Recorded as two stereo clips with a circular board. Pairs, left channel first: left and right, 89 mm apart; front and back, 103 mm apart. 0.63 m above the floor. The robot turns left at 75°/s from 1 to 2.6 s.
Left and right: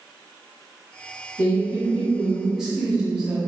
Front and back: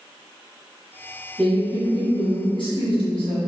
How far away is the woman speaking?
About 1.0 m.